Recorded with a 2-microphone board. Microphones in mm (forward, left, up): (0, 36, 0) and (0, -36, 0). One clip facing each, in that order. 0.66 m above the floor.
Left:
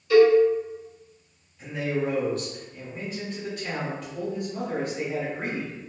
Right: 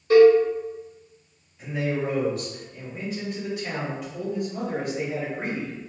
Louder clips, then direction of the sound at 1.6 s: Right 1 dB; 10° right (ahead or behind).